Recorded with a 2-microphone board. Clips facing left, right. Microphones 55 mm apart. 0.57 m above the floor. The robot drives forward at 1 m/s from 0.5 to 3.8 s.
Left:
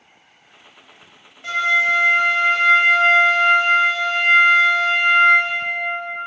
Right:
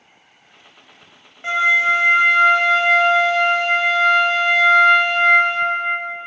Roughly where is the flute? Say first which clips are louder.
Right 2 dB; right.